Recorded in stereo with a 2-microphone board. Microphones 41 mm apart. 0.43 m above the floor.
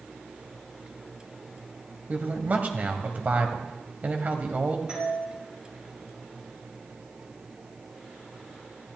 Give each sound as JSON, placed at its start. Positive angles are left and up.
{"t": 2.1, "sound": "a man speaking", "side_deg": -40, "distance_m": 2.5}
{"t": 4.9, "sound": "a doorbell", "side_deg": -20, "distance_m": 6.0}